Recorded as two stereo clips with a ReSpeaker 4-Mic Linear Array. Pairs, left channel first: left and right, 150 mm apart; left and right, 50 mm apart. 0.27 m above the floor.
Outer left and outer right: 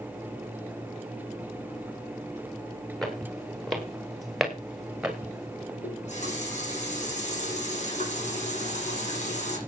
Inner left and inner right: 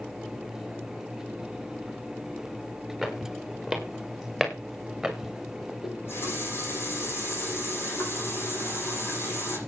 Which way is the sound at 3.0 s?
Centre (ahead or behind).